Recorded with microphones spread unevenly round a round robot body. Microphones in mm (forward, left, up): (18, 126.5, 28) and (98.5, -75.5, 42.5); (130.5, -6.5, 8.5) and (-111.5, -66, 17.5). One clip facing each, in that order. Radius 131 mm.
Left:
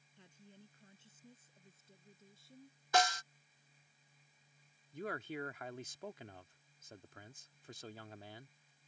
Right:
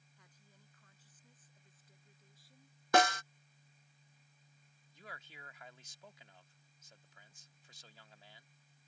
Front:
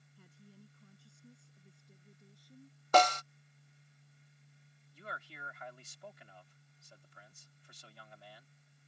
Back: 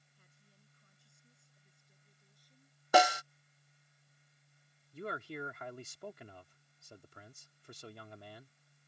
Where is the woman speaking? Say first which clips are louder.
Left 10 dB, front 13 dB; 50° left; by 2.8 s 45° left.